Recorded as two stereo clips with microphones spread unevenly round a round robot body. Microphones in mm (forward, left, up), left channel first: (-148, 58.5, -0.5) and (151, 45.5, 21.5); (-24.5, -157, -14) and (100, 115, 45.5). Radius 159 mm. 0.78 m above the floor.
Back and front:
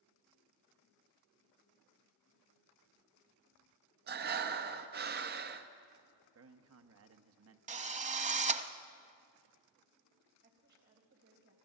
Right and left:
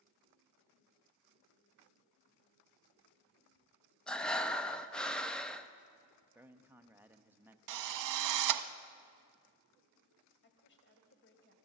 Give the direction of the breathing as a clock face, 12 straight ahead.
1 o'clock.